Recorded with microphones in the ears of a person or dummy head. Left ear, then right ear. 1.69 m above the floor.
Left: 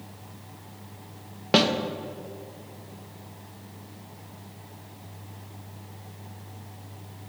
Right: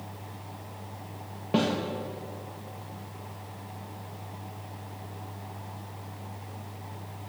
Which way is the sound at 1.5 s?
60° left (ahead or behind).